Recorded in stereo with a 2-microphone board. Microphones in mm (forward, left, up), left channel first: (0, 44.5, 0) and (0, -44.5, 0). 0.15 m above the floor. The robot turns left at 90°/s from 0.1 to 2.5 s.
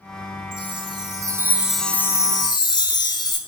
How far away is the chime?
About 0.7 m.